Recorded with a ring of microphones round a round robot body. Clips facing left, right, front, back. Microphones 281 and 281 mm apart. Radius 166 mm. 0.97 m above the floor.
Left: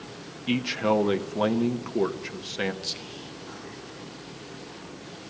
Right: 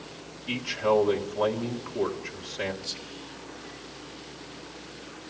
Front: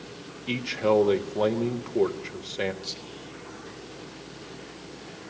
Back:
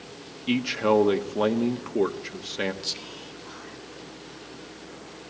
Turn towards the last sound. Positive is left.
turn(degrees=130)